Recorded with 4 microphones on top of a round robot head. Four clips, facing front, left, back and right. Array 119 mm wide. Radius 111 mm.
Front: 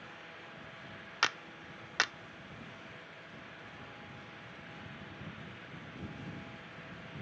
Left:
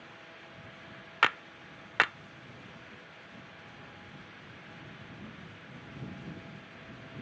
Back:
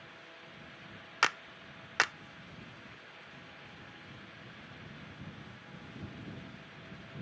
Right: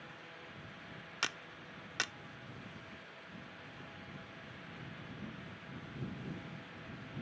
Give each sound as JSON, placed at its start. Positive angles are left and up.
{"t": 1.2, "sound": "a clap", "azimuth_deg": 115}